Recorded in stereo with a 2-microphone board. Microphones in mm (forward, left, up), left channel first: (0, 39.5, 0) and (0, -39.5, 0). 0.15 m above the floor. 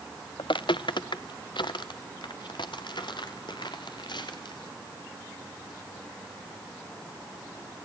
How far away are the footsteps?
About 0.8 m.